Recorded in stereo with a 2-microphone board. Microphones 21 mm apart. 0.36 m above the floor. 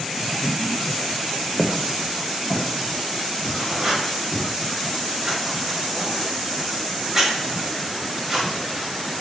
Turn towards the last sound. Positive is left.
turn(degrees=-15)  # may be behind; listen again after turning